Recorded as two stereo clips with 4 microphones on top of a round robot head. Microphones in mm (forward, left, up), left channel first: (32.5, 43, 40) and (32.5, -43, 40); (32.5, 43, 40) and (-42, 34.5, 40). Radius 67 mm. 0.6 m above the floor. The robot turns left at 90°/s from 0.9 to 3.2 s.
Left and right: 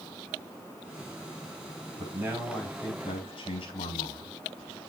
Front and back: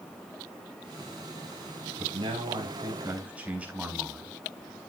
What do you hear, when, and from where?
2.0 s a man speaking: 135° right, 3.5 m; by 4.4 s 115° left, 3.5 m